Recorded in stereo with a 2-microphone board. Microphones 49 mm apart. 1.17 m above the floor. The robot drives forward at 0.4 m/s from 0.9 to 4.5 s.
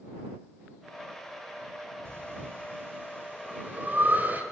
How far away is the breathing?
About 3 m.